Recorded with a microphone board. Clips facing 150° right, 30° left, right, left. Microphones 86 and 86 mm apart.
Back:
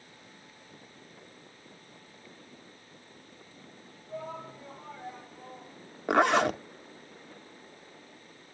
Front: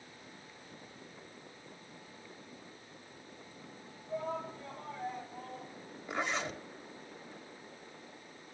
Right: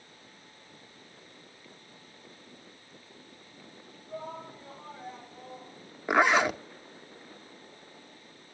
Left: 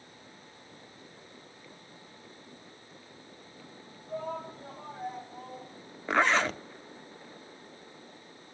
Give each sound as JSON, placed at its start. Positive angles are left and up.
{"t": 4.1, "sound": "a shout", "azimuth_deg": 70, "distance_m": 6.0}
{"t": 6.1, "sound": "a zipper", "azimuth_deg": -165, "distance_m": 0.6}